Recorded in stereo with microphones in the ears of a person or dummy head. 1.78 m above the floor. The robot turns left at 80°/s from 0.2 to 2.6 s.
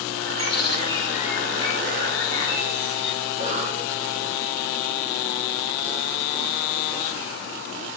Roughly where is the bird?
Right.